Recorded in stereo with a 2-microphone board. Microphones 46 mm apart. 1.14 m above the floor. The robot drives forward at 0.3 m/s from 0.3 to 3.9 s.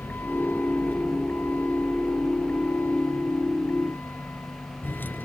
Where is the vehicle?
50° left (ahead or behind).